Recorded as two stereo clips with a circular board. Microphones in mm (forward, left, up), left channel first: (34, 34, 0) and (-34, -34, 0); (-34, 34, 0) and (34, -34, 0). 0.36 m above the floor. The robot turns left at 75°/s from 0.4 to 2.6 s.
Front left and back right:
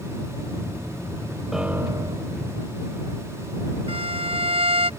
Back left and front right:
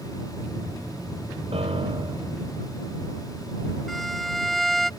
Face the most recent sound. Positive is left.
turn(degrees=-135)